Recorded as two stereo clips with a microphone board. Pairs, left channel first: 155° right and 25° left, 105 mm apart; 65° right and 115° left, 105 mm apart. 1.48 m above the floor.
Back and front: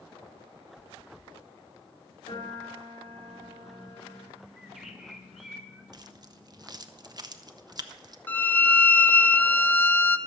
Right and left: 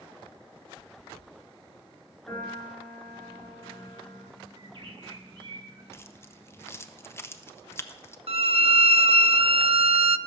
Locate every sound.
2.3 s a piano: 140° right, 4.5 m
4.6 s a bird: 110° left, 1.5 m
5.9 s keys jangling: 10° right, 0.6 m
8.3 s a violin: 130° left, 0.5 m